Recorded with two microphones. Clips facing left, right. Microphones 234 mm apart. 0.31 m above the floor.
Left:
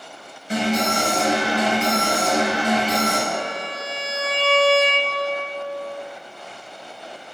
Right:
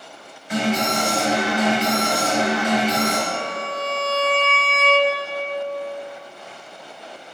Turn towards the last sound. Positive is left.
turn(degrees=25)  # may be behind; listen again after turning